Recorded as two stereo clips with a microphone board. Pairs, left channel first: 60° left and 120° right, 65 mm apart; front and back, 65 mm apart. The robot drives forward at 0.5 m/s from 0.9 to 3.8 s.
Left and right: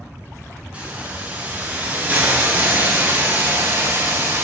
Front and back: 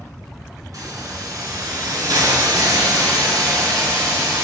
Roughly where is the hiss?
Behind.